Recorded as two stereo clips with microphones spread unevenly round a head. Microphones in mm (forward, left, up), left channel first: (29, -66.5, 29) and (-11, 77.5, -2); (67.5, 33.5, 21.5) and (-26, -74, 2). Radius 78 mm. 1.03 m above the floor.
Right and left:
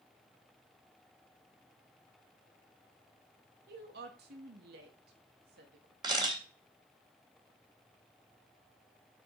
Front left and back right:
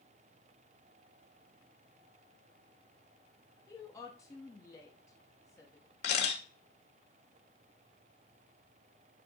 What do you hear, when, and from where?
3.7 s a woman speaking: 120° left, 1.1 m
6.0 s a camera shutter: 40° left, 2 m